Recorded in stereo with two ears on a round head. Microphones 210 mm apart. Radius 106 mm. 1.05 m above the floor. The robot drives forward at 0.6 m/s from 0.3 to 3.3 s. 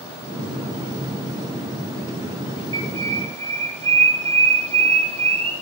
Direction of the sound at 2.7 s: 20° right (ahead or behind).